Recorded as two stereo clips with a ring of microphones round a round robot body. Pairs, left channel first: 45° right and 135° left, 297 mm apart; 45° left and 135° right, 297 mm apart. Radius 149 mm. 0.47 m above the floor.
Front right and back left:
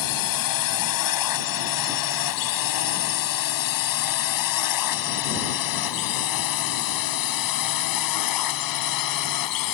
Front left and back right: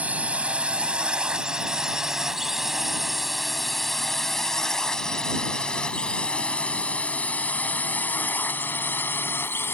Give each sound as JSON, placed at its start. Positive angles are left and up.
{"t": 0.0, "sound": "a drone", "azimuth_deg": -50}